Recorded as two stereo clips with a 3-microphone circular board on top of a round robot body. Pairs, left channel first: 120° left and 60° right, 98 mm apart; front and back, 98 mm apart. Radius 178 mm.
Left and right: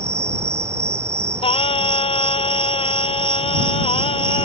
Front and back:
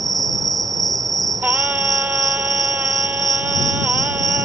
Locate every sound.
0.0 s an insect: 125° right
1.4 s singing: 105° left